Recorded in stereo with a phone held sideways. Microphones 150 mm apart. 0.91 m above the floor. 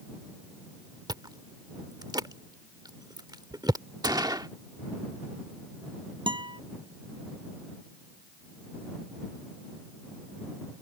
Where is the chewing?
30° right (ahead or behind).